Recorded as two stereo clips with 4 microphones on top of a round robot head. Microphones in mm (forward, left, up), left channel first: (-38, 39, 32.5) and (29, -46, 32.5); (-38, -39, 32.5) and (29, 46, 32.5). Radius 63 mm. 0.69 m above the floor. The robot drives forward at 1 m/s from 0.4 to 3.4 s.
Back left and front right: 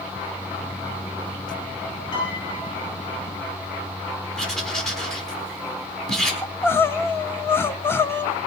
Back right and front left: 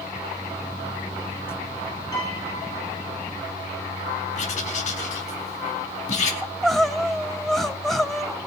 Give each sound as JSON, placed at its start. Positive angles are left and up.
{"t": 2.1, "sound": "a piano", "azimuth_deg": 175, "distance_m": 8.5}
{"t": 4.4, "sound": "writing", "azimuth_deg": -145, "distance_m": 4.0}
{"t": 6.4, "sound": "crying", "azimuth_deg": 145, "distance_m": 1.0}